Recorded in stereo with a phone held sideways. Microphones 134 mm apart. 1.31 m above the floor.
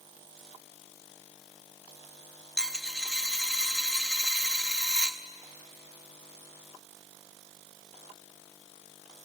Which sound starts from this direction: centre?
A dropped coin, at 2.6 s.